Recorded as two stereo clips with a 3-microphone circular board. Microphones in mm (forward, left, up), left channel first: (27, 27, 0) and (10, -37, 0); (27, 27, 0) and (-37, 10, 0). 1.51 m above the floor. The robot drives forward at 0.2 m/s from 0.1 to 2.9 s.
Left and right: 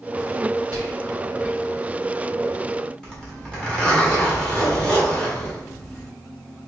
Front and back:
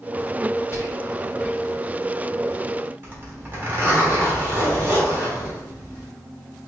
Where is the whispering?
65° left, 2 m.